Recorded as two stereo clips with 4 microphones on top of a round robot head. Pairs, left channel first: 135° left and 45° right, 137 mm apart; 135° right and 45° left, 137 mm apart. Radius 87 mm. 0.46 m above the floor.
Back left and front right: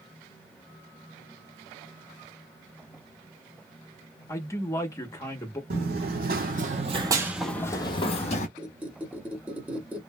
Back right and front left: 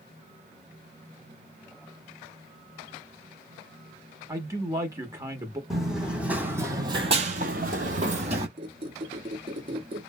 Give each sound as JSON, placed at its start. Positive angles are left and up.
{"t": 4.3, "sound": "a man speaking", "azimuth_deg": 90, "distance_m": 0.8}
{"t": 5.7, "sound": "running footsteps", "azimuth_deg": -40, "distance_m": 1.2}
{"t": 8.6, "sound": "a squeak", "azimuth_deg": 30, "distance_m": 1.0}